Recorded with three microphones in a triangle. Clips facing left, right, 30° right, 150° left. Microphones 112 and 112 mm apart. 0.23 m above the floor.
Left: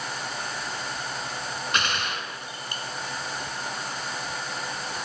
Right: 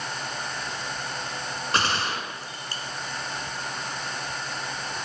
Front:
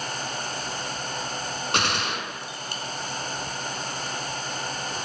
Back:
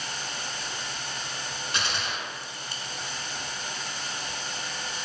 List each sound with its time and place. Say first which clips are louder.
1.7 s a gunshot: right 3 dB, front 5 dB; 40° right, 1.2 m